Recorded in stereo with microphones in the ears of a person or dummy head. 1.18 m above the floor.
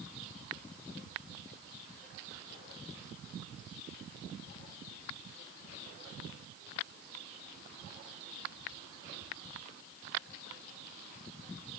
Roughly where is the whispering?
No whispering in this recording.